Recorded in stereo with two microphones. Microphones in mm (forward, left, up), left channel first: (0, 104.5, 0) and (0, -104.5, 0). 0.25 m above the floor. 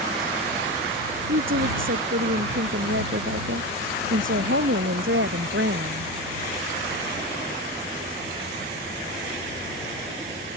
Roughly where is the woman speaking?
Right.